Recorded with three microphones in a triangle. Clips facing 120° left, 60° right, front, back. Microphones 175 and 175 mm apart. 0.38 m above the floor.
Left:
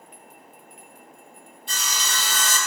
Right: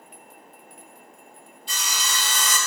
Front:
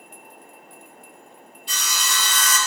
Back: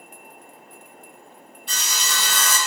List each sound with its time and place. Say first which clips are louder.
1.7 s sawing: even, front 1 dB; 150° left, 5.5 m